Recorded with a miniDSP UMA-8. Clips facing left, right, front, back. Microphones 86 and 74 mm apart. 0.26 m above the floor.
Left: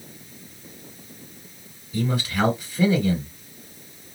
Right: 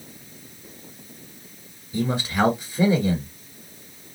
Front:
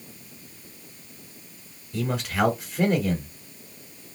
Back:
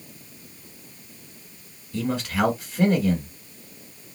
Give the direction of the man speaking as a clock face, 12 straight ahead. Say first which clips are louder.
Right 1 dB, back 1 dB; 3 o'clock.